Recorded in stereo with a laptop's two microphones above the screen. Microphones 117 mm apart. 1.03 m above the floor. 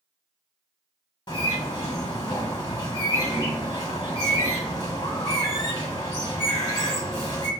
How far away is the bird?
About 1.2 m.